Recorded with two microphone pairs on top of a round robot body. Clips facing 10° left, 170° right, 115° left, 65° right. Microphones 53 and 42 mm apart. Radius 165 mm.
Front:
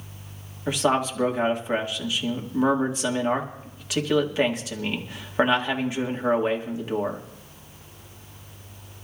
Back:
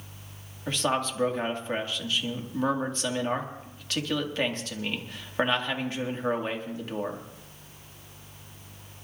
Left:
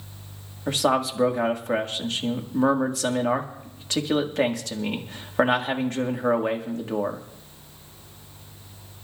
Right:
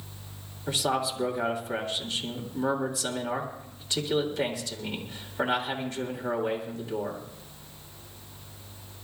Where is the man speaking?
85° left, 1.8 m.